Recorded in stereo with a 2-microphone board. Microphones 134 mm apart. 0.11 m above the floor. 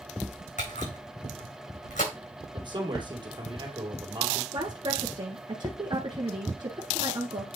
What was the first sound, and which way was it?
A camera shutter, 70° left (ahead or behind).